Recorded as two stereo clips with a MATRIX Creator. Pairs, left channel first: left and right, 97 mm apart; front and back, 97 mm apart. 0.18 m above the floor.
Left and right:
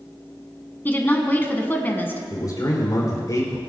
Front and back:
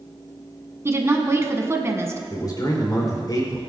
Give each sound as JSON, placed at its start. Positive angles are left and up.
{"t": 0.8, "sound": "a woman speaking", "azimuth_deg": 145, "distance_m": 1.4}
{"t": 2.3, "sound": "a man speaking", "azimuth_deg": 45, "distance_m": 4.0}